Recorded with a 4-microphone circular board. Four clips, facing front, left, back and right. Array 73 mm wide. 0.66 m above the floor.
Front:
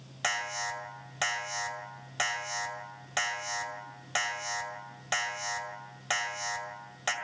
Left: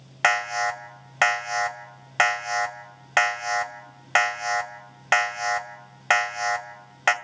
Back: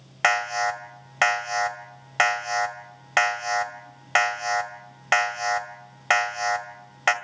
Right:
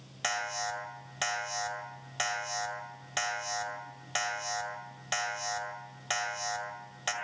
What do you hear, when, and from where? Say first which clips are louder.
0.2 s an alarm: left 11 dB, back 11 dB; 130° left, 1.9 m